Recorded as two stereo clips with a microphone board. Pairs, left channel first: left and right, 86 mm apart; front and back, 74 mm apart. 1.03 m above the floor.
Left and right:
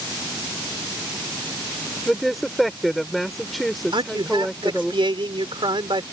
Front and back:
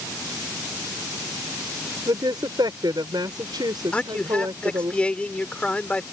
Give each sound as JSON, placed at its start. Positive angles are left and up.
{"t": 2.1, "sound": "a woman speaking", "azimuth_deg": 180}
{"t": 3.9, "sound": "a man speaking", "azimuth_deg": -75}